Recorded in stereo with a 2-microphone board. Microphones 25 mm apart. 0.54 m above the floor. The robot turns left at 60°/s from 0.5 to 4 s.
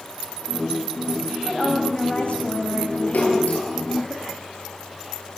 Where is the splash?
75° left (ahead or behind), 9.5 m; by 3.7 s 45° left (ahead or behind), 9.5 m.